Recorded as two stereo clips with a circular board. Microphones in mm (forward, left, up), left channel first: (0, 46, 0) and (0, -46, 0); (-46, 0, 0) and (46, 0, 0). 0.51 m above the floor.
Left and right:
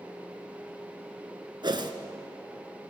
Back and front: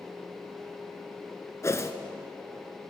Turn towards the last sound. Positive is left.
turn(degrees=-120)